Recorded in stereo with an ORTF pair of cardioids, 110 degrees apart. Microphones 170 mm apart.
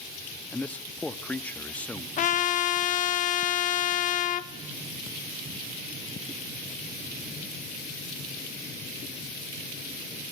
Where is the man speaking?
10° left, 1.7 m.